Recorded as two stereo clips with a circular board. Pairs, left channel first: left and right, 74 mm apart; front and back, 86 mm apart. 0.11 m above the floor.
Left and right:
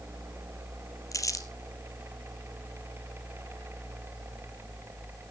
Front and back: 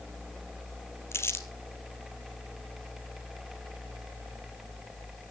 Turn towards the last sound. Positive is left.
turn(degrees=55)